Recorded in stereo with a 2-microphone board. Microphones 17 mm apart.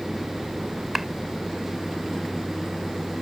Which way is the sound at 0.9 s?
10° right (ahead or behind).